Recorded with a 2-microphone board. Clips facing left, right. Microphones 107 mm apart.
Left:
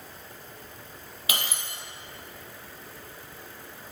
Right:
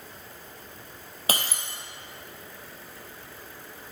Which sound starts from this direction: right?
Breaking glass, at 1.3 s.